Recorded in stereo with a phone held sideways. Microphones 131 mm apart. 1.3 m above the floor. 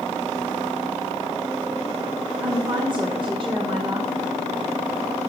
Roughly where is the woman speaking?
Right.